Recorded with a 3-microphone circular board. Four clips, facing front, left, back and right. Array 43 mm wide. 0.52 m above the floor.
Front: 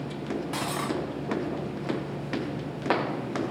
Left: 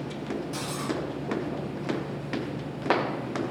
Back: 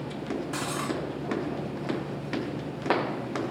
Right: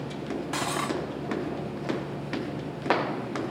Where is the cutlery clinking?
60° right, 2 m.